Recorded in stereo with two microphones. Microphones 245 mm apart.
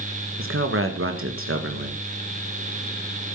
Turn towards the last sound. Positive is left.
turn(degrees=-60)  # may be behind; listen again after turning